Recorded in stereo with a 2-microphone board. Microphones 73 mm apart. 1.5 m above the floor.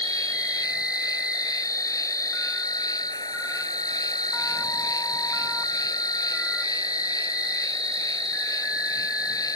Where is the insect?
55° left (ahead or behind).